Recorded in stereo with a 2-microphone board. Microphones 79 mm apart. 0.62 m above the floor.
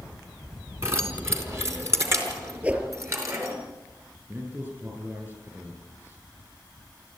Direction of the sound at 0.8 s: 30° right (ahead or behind).